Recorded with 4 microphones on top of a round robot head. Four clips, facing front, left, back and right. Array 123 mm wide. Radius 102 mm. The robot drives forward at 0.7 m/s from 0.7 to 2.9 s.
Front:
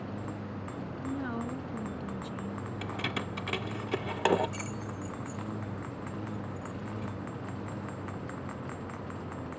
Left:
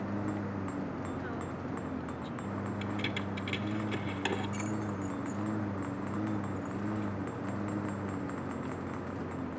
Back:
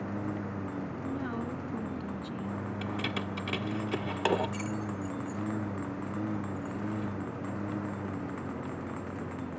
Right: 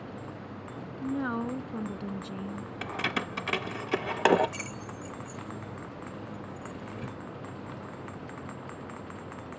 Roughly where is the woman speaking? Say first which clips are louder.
Right 6 dB, front 2 dB; right.